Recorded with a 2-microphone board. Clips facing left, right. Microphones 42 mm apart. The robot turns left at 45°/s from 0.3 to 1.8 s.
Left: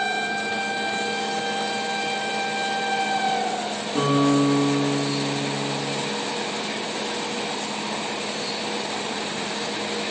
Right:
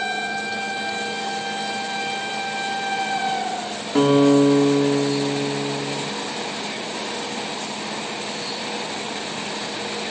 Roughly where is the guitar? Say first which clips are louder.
Right 5 dB; right.